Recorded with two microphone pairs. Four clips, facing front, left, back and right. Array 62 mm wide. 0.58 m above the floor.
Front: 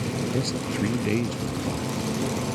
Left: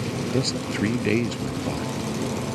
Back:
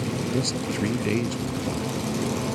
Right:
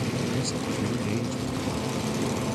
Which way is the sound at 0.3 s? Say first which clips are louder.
Left 3 dB, back 1 dB; 95° left.